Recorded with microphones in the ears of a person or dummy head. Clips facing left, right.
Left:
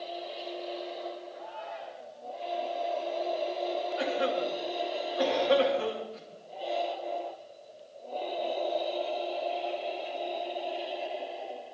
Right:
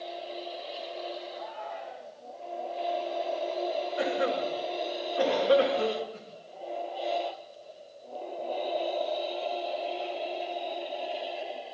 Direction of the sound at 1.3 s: 60° right (ahead or behind).